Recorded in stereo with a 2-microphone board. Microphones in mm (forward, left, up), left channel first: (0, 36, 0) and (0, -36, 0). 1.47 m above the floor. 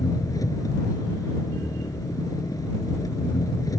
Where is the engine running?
55° left (ahead or behind).